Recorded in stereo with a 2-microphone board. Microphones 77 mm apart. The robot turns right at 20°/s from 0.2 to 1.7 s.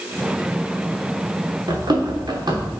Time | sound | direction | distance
1.7 | running footsteps | 65° right (ahead or behind) | 3 m